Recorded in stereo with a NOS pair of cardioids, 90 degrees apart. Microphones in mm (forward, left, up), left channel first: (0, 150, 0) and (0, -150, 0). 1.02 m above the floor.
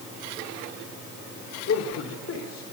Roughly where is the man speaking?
Ahead left.